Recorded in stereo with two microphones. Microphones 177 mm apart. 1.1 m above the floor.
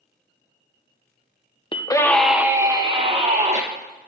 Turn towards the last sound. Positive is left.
turn(degrees=-35)  # may be behind; listen again after turning